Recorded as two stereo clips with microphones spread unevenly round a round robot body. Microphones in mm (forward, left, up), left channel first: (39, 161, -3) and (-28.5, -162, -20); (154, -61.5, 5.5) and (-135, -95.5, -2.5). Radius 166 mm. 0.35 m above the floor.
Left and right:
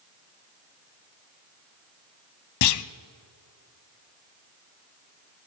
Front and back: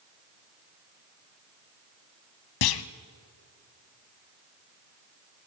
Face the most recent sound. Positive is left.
turn(degrees=35)